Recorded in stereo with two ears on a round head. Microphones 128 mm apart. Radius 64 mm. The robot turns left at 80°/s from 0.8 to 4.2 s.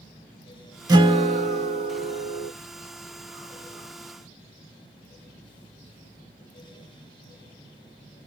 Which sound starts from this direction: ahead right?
A guitar, at 0.9 s.